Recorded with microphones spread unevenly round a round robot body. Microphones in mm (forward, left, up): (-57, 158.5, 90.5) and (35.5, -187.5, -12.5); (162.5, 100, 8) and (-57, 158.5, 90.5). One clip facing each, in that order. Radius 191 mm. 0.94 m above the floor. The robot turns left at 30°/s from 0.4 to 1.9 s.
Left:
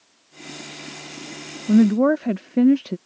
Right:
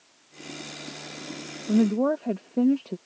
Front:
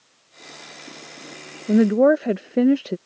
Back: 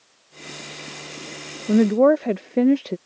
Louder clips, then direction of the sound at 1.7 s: Left 6 dB, even; 60° left.